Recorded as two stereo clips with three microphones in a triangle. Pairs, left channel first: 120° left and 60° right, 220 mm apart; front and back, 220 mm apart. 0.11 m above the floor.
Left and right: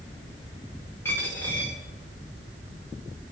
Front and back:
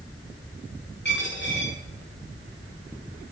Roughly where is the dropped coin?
Ahead left.